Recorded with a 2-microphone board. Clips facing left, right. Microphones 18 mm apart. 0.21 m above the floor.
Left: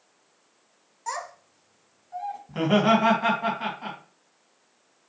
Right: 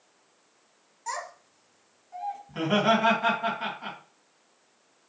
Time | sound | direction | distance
1.1 | a child speaking | 5° left (ahead or behind) | 0.7 m
2.5 | laughter | 5° left (ahead or behind) | 1.3 m